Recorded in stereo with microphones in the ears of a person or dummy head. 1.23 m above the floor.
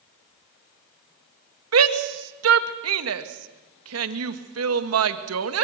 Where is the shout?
85° right, 1.6 m.